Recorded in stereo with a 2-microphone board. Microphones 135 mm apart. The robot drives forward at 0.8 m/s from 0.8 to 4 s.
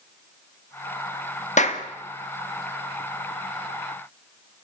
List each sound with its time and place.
1.6 s a clap: 65° left (ahead or behind), 1.8 m; by 1.8 s 55° left (ahead or behind), 1.9 m